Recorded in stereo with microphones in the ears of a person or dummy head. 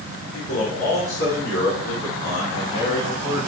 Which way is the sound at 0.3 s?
85° left.